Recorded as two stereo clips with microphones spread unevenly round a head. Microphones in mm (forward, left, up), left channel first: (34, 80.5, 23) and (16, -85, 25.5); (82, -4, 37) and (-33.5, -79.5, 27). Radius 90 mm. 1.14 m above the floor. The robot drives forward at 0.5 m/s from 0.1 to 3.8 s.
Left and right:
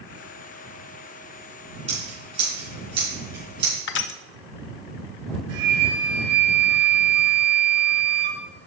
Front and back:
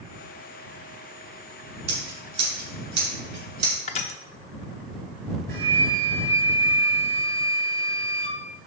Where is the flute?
140° right, 5 m.